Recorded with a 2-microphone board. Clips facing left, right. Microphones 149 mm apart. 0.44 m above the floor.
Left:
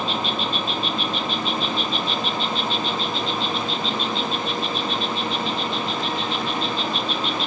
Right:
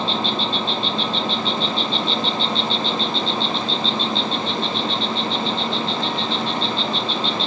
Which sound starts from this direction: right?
An insect, at 0.0 s.